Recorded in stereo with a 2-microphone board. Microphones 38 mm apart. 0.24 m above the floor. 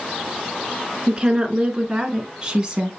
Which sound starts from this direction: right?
A woman speaking, at 1.1 s.